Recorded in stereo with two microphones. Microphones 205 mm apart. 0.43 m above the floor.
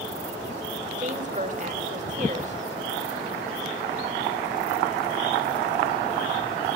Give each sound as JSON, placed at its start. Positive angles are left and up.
{"t": 1.0, "sound": "a woman speaking", "side_deg": -35, "distance_m": 1.3}